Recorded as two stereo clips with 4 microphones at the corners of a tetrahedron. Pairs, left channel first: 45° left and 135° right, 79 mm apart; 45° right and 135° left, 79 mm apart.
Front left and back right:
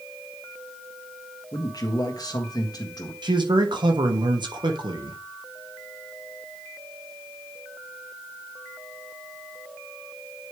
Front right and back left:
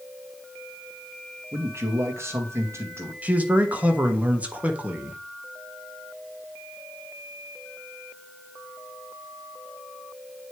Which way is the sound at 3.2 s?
155° right.